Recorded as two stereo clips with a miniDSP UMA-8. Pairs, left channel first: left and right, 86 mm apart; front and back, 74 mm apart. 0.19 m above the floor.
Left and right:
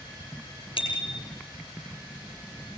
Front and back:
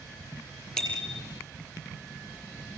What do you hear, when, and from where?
0.8 s a bicycle bell: 80° left, 4.5 m